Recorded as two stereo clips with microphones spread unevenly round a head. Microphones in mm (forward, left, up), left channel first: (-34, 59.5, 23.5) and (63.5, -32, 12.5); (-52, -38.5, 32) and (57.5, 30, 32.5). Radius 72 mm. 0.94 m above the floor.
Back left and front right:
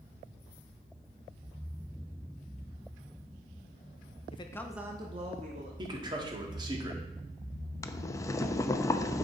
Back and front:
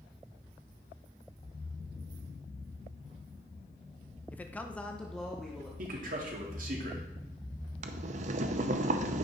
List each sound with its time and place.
4.3 s a man speaking: 140° left, 0.8 m; by 5.7 s 60° right, 1.6 m
5.8 s a man speaking: 15° left, 1.7 m
7.8 s boiling: 65° left, 0.5 m